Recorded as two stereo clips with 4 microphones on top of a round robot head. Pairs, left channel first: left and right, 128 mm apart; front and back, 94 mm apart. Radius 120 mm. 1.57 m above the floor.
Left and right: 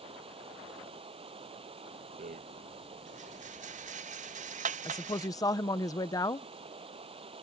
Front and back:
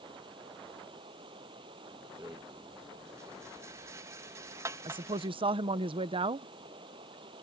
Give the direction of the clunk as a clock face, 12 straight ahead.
I don't hear a clunk.